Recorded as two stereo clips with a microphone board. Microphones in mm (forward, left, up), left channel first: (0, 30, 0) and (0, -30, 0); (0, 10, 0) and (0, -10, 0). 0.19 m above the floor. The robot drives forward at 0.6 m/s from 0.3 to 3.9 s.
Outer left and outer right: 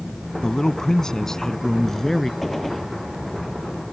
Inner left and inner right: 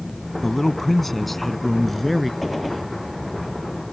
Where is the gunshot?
5° left (ahead or behind).